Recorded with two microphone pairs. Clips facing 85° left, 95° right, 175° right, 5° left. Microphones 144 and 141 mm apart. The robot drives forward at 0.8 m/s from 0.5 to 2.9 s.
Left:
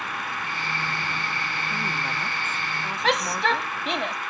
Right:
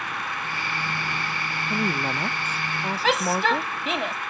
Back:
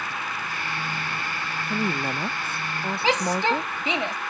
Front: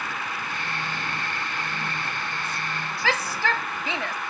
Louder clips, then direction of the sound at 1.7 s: Right 9 dB, back 6 dB; 145° right.